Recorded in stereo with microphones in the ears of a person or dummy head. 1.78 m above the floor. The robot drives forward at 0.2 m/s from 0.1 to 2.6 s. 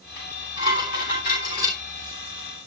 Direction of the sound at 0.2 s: 50° left (ahead or behind).